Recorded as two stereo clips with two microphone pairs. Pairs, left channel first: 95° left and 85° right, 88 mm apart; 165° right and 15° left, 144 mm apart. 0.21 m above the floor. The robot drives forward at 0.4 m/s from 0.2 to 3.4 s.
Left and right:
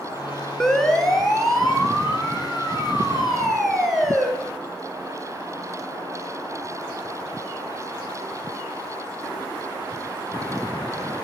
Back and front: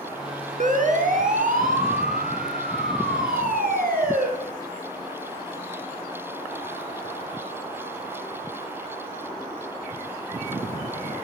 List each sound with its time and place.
0.6 s a siren: 10° left, 2.5 m; by 4.3 s straight ahead, 6 m